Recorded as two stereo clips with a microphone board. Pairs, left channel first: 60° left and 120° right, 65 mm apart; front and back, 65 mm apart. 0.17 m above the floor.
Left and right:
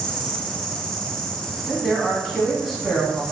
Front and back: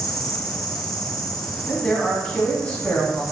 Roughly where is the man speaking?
Ahead right.